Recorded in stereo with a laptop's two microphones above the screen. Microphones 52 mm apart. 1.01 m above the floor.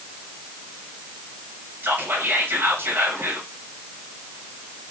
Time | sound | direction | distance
1.8 | whispering | 40° right (ahead or behind) | 0.8 m